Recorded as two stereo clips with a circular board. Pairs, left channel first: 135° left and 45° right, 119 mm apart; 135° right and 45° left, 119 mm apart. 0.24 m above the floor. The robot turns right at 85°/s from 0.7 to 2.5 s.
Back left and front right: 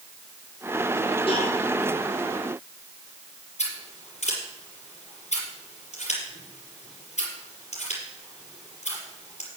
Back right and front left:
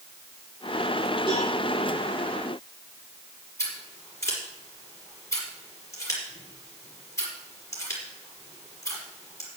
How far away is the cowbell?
About 4.5 m.